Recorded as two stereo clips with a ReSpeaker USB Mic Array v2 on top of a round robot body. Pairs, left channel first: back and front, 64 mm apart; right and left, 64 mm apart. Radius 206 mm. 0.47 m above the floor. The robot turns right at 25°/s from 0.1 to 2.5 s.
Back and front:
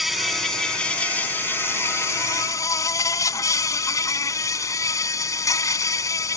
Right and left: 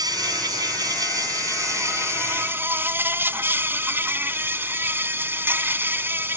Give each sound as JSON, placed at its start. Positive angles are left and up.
{"t": 0.0, "sound": "an insect", "azimuth_deg": 90}